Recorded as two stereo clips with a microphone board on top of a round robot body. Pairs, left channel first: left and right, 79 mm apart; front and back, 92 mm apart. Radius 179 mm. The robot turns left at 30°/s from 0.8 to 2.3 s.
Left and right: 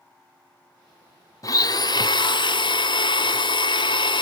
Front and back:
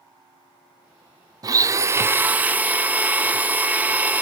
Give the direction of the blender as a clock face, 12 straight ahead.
8 o'clock.